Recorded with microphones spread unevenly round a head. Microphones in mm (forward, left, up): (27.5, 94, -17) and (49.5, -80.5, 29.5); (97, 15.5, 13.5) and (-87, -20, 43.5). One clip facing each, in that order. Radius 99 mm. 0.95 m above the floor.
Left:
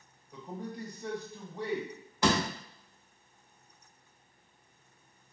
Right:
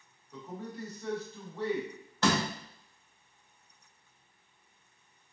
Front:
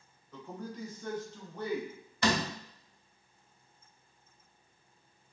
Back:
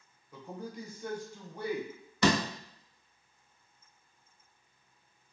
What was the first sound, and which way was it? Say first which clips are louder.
A man speaking: left 1 dB, even; 105° left.